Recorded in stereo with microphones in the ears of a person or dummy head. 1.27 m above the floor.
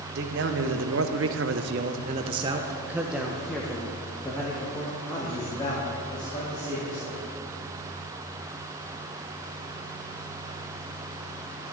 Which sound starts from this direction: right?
A man speaking, at 0.1 s.